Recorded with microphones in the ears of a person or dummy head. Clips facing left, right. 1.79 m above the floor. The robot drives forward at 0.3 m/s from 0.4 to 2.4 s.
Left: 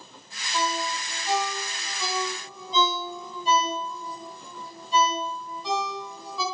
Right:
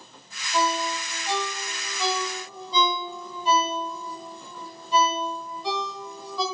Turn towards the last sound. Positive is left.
turn(degrees=-50)  # may be behind; listen again after turning